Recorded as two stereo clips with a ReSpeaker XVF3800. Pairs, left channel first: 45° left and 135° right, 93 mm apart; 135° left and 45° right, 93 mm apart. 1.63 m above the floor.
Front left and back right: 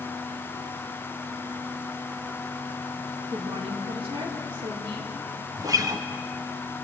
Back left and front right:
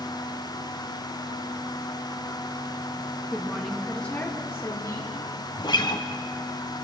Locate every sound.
3.3 s a woman speaking: 130° right, 3 m; by 5.2 s 175° right, 3.5 m
5.6 s a guitar: 175° left, 1.2 m